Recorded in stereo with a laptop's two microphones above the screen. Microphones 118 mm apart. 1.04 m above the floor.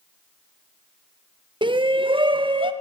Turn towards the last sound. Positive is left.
turn(degrees=-45)  # may be behind; listen again after turning